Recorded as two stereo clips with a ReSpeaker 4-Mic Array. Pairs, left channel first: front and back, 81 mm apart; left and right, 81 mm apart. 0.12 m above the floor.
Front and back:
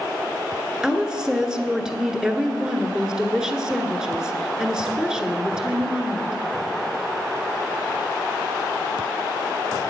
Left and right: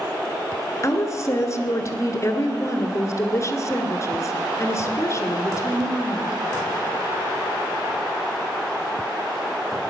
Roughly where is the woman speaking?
Left.